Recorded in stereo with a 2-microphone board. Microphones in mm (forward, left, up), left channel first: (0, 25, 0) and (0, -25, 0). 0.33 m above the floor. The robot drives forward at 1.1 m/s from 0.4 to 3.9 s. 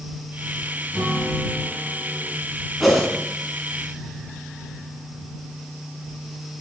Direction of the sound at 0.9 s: 15° left (ahead or behind).